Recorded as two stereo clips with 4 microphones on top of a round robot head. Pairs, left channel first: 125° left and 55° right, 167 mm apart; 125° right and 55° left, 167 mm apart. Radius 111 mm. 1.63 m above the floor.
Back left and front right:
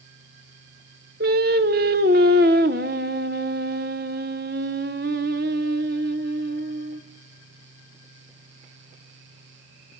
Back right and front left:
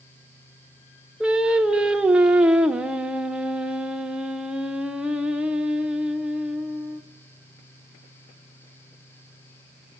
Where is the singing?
30° right, 0.7 m.